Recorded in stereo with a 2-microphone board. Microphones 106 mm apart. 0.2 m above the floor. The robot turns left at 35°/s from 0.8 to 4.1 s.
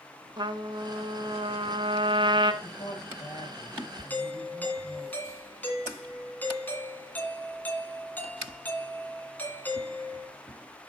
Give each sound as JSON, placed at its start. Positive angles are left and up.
{"t": 0.4, "sound": "a trumpet", "azimuth_deg": -60, "distance_m": 0.9}
{"t": 2.6, "sound": "a woman speaking", "azimuth_deg": 45, "distance_m": 6.5}
{"t": 4.1, "sound": "a doorbell", "side_deg": 15, "distance_m": 2.5}